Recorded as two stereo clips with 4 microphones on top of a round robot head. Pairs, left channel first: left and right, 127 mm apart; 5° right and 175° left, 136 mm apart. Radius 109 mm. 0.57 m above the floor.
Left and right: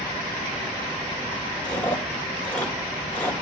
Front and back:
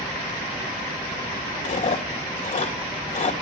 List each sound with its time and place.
1.6 s chewing: 10° left, 2.5 m